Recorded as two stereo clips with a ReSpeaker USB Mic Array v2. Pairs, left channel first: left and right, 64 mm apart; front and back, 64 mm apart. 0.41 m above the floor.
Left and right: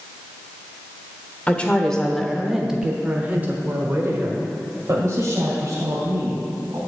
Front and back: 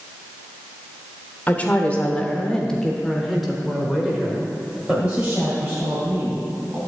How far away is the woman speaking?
About 1.5 m.